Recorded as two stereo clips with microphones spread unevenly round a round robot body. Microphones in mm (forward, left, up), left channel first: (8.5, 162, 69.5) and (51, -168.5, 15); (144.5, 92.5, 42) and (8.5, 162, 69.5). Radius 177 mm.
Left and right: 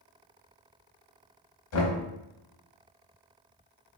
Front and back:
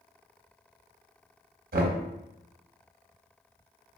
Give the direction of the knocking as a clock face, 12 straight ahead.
7 o'clock.